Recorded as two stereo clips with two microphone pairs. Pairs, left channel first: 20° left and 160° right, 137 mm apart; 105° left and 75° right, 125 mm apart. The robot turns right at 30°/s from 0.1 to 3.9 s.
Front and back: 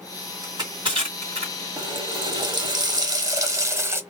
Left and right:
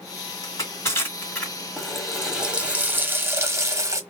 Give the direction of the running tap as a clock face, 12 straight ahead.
6 o'clock.